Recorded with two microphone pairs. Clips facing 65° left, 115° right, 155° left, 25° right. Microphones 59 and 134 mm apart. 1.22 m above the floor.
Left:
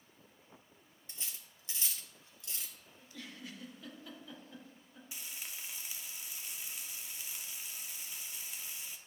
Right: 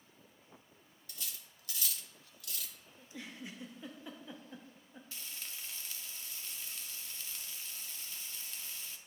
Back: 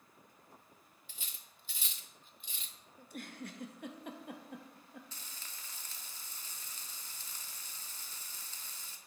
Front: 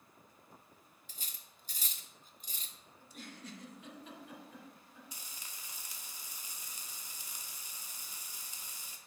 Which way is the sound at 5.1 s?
25° left.